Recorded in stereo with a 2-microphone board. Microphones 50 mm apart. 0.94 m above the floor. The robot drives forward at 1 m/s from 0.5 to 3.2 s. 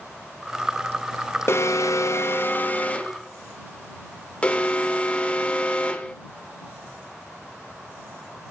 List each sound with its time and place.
1.5 s an alarm: 55° left (ahead or behind), 0.8 m; by 6.1 s 25° left (ahead or behind), 1.5 m